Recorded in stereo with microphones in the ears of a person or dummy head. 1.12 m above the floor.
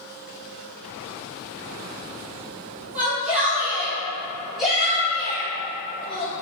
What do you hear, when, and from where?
3.0 s a shout: 5° right (ahead or behind), 0.7 m; by 6.3 s 10° left (ahead or behind), 1.6 m